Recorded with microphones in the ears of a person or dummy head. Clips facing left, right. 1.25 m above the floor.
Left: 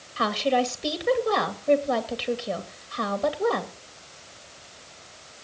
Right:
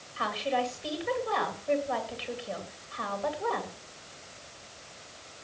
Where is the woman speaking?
60° left (ahead or behind), 2.5 m.